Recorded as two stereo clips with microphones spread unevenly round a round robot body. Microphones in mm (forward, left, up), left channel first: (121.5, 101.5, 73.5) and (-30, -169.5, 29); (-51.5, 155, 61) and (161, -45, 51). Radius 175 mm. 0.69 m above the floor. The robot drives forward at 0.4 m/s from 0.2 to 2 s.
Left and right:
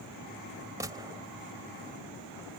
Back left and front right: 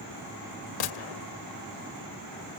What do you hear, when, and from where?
0.8 s a gunshot: 155° left; by 1.3 s 160° left